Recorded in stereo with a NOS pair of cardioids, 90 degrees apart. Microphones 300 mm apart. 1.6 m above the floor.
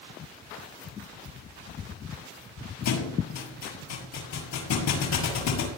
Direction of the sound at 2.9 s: 65° left.